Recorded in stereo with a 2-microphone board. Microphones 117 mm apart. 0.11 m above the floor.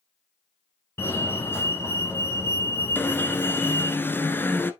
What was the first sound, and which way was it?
A fire alarm, 20° left (ahead or behind).